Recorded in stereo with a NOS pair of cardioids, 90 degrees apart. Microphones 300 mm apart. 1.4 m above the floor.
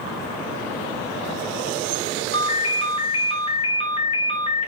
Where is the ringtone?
20° left, 0.7 m.